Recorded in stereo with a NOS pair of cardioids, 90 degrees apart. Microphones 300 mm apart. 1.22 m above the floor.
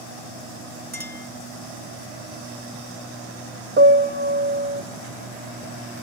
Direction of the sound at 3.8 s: 40° right.